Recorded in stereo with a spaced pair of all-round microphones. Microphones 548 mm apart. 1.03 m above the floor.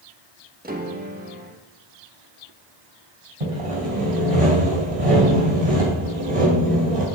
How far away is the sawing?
About 3.5 m.